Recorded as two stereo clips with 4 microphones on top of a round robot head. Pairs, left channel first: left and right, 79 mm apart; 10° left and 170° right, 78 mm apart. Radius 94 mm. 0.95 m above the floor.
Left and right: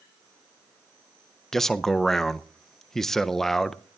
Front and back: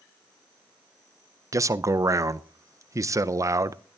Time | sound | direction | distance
1.5 | a man speaking | 170° left | 0.6 m